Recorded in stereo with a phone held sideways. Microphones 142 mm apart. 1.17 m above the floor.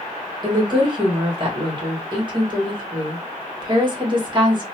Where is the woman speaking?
35° right (ahead or behind), 1.6 m.